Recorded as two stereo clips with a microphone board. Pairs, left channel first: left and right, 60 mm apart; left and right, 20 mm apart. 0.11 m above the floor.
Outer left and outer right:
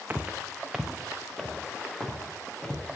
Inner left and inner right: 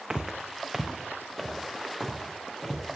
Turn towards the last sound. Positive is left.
turn(degrees=10)  # may be behind; listen again after turning